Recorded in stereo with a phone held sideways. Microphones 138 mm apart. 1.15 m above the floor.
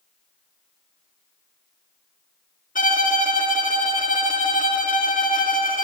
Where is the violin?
70° left (ahead or behind), 1.7 m.